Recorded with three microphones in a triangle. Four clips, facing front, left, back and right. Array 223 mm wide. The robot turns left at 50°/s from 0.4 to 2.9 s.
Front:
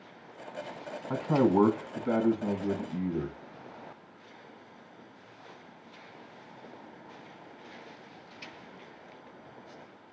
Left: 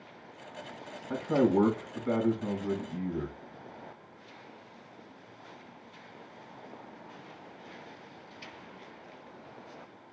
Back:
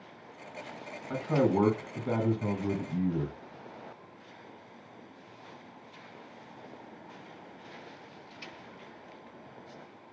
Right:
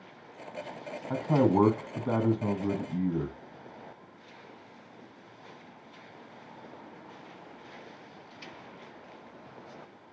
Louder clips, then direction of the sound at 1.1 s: Right 1 dB, front 2 dB; 55° right.